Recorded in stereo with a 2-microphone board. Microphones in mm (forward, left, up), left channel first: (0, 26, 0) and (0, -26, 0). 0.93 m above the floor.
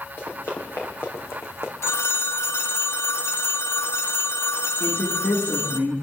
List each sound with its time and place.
0.2 s running footsteps: 60° left (ahead or behind), 4.5 m; by 1.7 s 55° left (ahead or behind), 2.5 m
1.8 s a phone ringing: 55° left (ahead or behind), 0.6 m
4.8 s a woman speaking: 50° left (ahead or behind), 8.5 m